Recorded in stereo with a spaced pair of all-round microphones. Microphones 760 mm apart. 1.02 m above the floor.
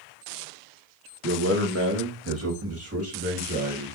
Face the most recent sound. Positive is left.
turn(degrees=-20)  # may be behind; listen again after turning